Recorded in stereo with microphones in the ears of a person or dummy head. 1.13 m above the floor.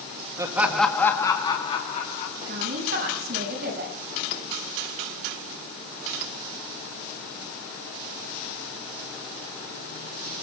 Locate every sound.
0.4 s laughter: 15° right (ahead or behind), 1.3 m; by 2.3 s 50° left (ahead or behind), 2.5 m
2.5 s a woman speaking: 60° right (ahead or behind), 6 m